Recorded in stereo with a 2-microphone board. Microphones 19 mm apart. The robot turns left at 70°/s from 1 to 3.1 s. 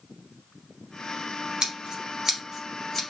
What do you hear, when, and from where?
1.6 s scissors: 70° right (ahead or behind), 3 m; by 3.0 s 5° left (ahead or behind), 3 m